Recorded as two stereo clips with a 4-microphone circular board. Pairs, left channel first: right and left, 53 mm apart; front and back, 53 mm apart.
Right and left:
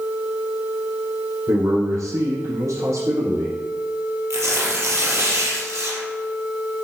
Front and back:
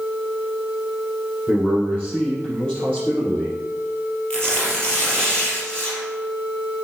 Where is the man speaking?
75° left, 4.5 m.